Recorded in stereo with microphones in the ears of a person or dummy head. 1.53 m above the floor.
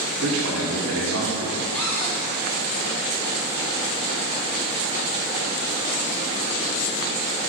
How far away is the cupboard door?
About 2.5 m.